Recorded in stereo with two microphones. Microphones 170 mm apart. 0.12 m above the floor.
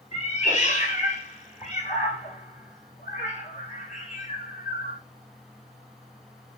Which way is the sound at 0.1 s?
45° left (ahead or behind).